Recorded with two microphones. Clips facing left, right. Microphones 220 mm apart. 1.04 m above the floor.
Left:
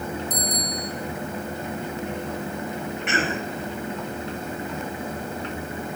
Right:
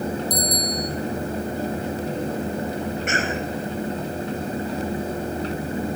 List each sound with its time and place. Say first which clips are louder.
0.3 s a bicycle bell: right 4 dB; 35° right (ahead or behind), 4.5 m
3.1 s a cough: right 1 dB; 45° right (ahead or behind), 5 m